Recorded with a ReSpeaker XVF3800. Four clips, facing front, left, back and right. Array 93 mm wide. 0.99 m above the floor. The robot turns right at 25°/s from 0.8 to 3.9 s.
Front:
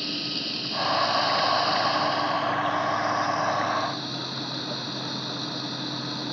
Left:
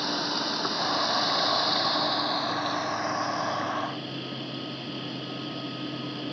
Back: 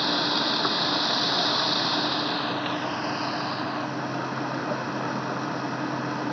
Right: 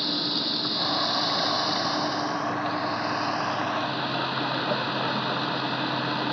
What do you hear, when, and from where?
0.0 s running water: 165° left; by 6.3 s 115° right